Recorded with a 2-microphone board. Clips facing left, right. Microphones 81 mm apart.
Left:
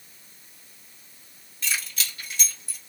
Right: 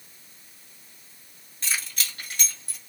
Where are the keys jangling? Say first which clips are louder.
Left 1 dB; 35° right (ahead or behind), 1.7 m; by 2.8 s 70° right (ahead or behind), 1.6 m.